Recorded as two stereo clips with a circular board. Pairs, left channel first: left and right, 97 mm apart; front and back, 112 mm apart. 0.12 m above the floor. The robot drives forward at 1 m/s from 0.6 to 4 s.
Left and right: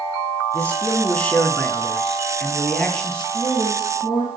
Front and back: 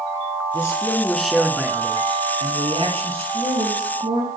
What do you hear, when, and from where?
0.5 s a man speaking: 25° left, 1.3 m; by 3.2 s 170° left, 2.5 m
3.3 s a woman speaking: 165° left, 3.5 m; by 4.3 s 170° left, 4 m